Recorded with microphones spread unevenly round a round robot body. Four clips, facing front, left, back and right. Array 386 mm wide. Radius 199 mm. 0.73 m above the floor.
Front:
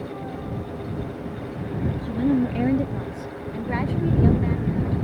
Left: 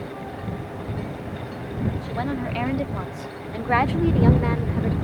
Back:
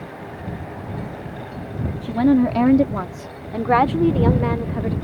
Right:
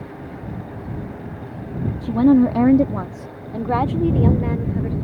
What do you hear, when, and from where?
2.0 s a woman speaking: 100° right; by 5.0 s 165° left